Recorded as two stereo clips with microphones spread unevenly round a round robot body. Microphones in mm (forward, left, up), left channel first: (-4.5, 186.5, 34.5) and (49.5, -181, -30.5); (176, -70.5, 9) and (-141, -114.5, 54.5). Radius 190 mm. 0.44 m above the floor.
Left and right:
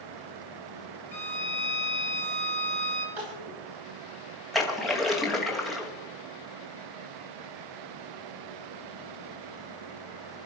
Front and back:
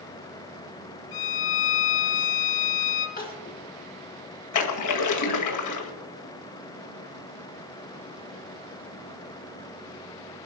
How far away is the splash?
About 2 m.